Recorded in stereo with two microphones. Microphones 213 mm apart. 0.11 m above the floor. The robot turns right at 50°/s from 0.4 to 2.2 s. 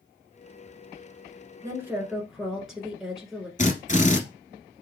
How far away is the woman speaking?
About 1.3 m.